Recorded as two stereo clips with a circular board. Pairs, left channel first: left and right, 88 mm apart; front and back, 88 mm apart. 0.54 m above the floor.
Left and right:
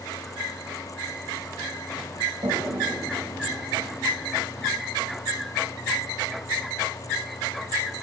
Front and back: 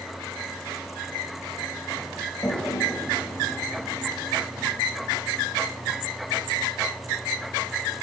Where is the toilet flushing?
65° right, 3.5 m.